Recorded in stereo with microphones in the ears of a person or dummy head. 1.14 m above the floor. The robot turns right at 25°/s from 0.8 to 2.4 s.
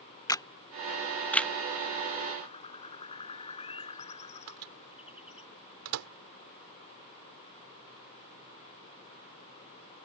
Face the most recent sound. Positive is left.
turn(degrees=-75)  # may be behind; listen again after turning